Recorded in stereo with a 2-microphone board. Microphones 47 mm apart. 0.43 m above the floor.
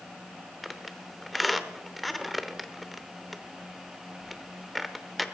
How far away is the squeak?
About 0.9 m.